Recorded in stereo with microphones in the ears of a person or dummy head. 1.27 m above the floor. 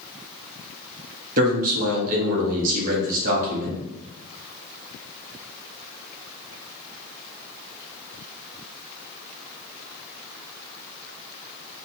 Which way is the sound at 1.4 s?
45° right (ahead or behind).